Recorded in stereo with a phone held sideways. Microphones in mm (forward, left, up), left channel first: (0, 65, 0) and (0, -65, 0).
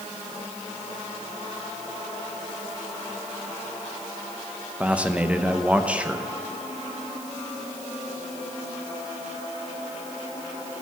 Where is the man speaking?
10° right (ahead or behind), 0.8 m.